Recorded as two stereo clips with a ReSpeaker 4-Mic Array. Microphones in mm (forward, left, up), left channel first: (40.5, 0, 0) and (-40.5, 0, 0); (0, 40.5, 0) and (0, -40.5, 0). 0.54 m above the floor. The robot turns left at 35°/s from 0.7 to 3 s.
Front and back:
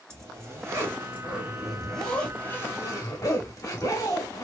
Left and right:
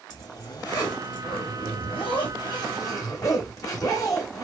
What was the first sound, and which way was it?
A zipper, 125° left.